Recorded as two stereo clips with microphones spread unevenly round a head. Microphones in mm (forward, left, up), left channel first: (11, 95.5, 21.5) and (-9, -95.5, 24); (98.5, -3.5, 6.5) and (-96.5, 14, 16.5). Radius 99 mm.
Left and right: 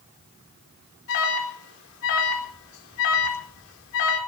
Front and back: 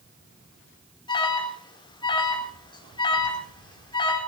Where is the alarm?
65° left, 4 m.